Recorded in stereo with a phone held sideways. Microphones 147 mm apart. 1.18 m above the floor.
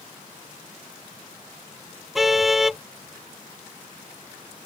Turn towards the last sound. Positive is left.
turn(degrees=0)  # may be behind; listen again after turning